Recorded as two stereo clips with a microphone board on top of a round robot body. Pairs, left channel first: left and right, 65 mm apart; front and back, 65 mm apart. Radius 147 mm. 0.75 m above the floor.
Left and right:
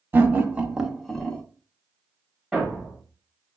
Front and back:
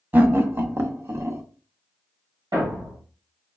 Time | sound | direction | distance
0.1 | laughter | 135° right | 1.0 m
2.5 | a thud | 175° left | 1.9 m